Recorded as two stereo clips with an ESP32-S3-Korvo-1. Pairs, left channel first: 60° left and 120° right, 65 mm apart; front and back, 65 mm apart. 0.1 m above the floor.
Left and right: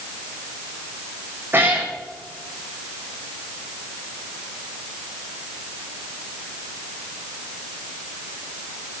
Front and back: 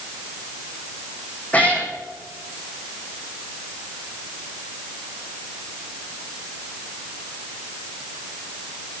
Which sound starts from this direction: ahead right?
A cat meowing, at 1.5 s.